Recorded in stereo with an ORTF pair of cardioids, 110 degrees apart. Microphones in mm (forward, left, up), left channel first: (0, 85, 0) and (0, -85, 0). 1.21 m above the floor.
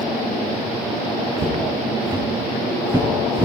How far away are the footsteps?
About 4.5 m.